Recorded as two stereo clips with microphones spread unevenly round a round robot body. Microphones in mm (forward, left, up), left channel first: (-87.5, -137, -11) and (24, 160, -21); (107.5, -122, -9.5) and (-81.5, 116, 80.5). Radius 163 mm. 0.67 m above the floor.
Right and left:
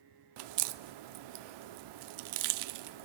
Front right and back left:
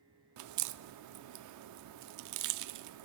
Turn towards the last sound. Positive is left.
turn(degrees=85)